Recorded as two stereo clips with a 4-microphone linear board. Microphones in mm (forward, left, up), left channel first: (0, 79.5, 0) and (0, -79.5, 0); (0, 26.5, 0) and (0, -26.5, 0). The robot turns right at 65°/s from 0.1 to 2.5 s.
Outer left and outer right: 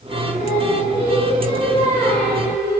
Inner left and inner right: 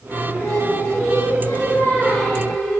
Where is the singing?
40° left, 1.7 m; by 2.8 s 165° right, 1.7 m.